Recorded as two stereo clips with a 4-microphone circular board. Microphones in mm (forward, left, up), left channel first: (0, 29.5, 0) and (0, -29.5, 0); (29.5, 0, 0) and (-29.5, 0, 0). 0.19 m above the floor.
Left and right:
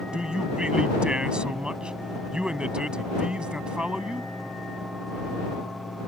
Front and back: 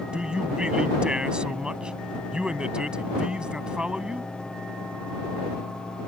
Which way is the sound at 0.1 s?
135° right.